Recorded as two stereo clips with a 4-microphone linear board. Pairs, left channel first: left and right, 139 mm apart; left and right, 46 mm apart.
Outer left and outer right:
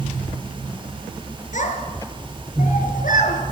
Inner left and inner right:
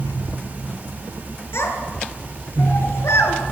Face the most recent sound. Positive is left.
turn(degrees=80)